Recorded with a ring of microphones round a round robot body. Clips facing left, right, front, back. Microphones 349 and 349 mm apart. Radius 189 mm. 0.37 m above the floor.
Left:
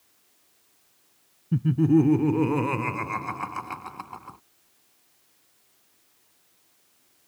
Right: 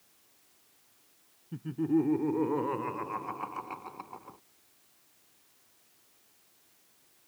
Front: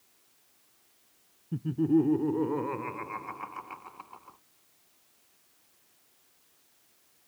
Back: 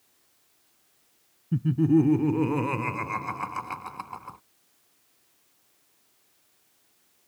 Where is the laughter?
125° left; by 4.4 s 155° left.